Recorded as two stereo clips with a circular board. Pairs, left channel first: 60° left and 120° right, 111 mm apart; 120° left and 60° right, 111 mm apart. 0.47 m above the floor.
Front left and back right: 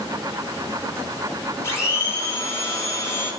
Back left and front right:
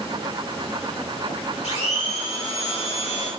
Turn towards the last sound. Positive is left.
turn(degrees=120)